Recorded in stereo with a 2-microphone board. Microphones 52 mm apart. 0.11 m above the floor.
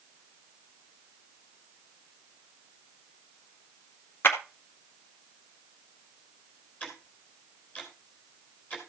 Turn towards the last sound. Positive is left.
turn(degrees=25)  # may be behind; listen again after turning